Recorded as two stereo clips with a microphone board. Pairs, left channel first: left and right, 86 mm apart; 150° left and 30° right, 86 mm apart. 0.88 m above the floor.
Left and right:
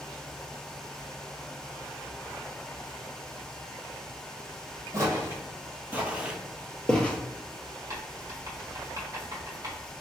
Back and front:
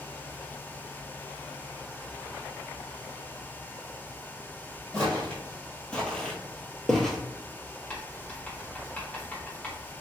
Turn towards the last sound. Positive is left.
turn(degrees=-135)